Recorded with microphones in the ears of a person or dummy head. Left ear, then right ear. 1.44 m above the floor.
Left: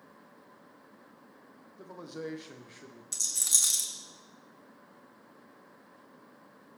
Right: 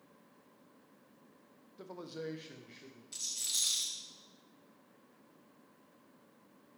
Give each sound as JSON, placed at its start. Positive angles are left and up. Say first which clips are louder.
{"t": 1.8, "sound": "a man speaking", "louder": "left 3 dB", "side_deg": -20, "distance_m": 0.7}
{"t": 3.1, "sound": "a rattle", "louder": "left 7 dB", "side_deg": 40, "distance_m": 1.4}